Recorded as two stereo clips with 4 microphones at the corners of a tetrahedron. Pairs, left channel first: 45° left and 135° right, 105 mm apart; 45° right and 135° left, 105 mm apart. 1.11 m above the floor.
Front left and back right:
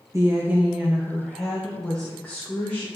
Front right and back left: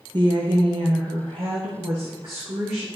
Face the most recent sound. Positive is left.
turn(degrees=110)